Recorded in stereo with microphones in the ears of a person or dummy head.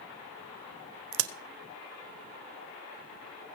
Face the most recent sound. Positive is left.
turn(degrees=-65)  # may be behind; listen again after turning